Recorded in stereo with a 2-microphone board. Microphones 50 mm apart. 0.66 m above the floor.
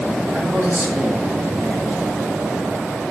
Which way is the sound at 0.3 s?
55° right (ahead or behind).